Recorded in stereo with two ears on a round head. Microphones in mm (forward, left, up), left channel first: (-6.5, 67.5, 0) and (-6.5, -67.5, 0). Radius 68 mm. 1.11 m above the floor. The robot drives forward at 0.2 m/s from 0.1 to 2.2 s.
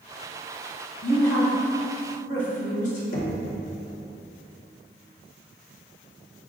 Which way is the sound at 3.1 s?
60° left (ahead or behind).